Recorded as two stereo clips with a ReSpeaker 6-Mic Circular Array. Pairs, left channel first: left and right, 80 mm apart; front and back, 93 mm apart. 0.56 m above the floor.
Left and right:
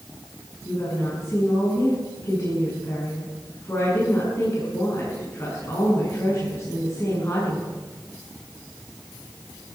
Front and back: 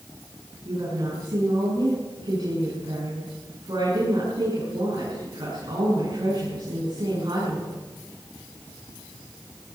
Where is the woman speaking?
145° left, 7 m.